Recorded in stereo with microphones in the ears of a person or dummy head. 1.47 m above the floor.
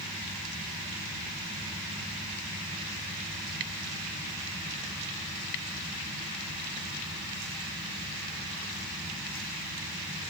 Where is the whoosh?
No whoosh in this recording.